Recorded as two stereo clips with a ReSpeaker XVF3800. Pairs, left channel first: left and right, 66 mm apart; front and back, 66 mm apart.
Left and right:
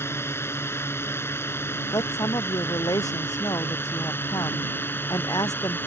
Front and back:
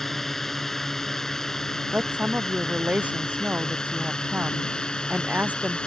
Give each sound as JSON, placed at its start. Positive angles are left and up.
{"t": 0.0, "sound": "a drone", "azimuth_deg": 85}
{"t": 1.9, "sound": "a woman speaking", "azimuth_deg": 110}